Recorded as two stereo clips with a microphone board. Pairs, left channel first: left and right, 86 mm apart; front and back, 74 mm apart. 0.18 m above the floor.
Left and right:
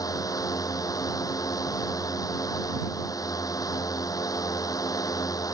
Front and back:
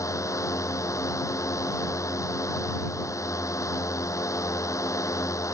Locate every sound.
0.0 s a drone: 45° left